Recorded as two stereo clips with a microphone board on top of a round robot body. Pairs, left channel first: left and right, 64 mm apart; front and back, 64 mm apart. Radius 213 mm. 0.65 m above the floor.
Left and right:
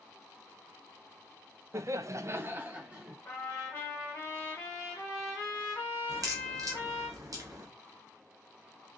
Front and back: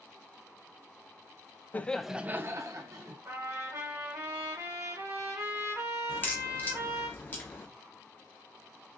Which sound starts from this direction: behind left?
A trumpet, at 3.2 s.